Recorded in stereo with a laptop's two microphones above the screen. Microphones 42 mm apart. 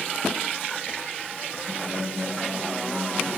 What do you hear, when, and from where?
1.7 s a guitar: 80° right, 7 m